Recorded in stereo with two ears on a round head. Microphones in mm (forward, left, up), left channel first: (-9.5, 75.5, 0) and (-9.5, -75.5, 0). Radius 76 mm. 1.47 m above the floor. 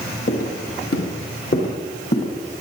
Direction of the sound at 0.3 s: 55° left (ahead or behind).